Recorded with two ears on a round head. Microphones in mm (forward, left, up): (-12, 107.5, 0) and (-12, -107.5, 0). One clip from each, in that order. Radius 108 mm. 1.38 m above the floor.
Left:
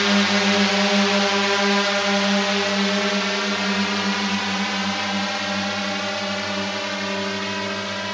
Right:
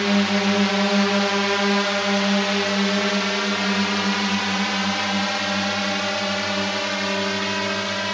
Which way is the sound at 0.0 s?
30° left (ahead or behind).